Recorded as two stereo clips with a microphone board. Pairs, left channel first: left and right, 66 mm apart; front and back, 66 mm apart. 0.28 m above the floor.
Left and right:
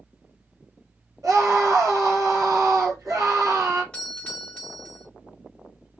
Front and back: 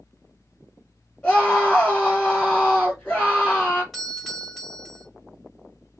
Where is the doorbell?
90° left, 1.4 m.